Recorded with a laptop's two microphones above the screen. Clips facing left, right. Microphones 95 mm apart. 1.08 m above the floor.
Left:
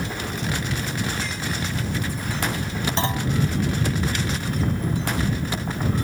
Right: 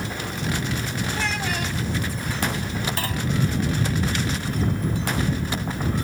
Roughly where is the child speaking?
Right.